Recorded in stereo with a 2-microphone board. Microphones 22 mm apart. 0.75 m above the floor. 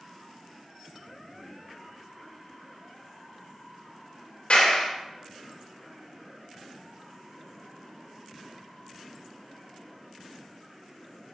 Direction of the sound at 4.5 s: 65° left (ahead or behind).